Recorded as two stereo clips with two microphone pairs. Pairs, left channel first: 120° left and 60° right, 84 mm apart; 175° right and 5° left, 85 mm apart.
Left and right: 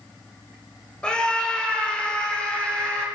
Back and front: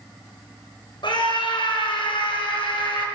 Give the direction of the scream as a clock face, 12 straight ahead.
5 o'clock.